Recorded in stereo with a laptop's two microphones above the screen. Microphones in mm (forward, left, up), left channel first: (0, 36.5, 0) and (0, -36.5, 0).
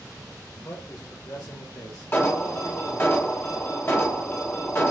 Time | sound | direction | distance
0.5 | a man speaking | 50° left (ahead or behind) | 1.4 m
2.1 | an alarm | 30° left (ahead or behind) | 1.0 m